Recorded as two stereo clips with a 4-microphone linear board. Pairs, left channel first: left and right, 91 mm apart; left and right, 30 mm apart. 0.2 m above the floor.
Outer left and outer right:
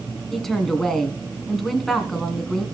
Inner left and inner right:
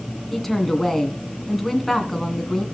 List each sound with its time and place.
0.3 s a woman speaking: 5° left (ahead or behind), 1.8 m